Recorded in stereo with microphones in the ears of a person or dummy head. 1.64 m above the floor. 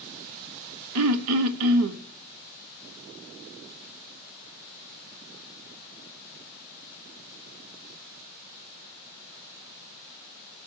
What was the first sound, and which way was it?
Throat clearing, 75° right (ahead or behind).